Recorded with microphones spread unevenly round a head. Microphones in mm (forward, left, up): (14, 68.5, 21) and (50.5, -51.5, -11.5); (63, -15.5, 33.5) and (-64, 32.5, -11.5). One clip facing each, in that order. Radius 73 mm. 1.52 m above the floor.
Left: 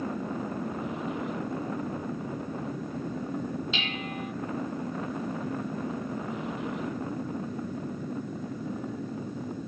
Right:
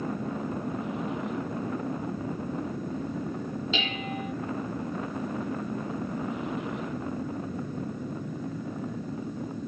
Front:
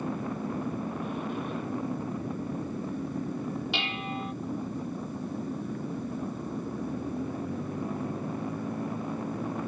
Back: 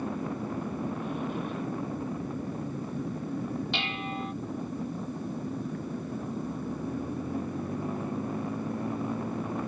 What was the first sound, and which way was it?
Dishes clattering, 105° right.